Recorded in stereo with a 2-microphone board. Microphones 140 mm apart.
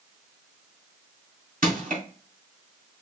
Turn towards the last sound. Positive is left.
turn(degrees=-75)  # may be behind; listen again after turning